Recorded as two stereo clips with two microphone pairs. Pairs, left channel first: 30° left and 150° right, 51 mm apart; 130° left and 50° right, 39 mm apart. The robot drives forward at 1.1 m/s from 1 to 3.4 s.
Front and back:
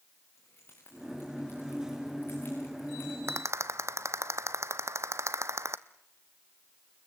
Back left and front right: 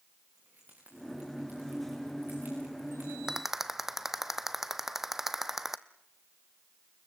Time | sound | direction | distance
0.3 | keys jangling | 15° right | 10 m
3.3 | a rattle | 125° right | 0.7 m